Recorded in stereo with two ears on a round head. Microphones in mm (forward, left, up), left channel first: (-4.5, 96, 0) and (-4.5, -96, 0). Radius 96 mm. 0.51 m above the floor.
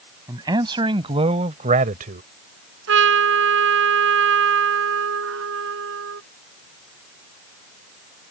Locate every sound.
0.3 s a man speaking: 20° right (ahead or behind); by 2.2 s 45° right (ahead or behind)
2.9 s a trumpet: 65° right (ahead or behind)